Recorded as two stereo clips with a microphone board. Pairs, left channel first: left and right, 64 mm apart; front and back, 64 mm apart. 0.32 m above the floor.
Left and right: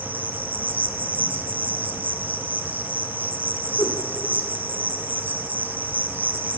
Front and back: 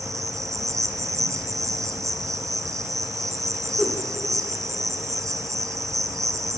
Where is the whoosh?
90° left, 3 m.